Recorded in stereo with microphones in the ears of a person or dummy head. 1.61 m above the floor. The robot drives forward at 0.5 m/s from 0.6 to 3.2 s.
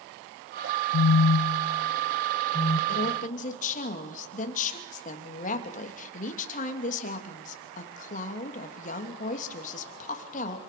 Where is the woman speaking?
45° left (ahead or behind), 2.5 m.